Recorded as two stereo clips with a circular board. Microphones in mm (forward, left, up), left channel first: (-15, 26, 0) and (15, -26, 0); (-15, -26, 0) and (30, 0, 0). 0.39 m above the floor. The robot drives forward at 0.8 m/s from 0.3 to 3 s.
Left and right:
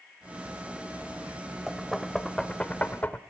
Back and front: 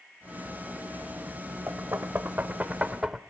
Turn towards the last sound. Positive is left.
turn(degrees=95)